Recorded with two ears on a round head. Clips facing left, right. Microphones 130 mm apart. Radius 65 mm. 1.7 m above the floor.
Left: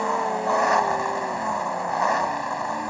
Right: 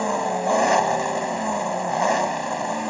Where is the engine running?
25° right (ahead or behind).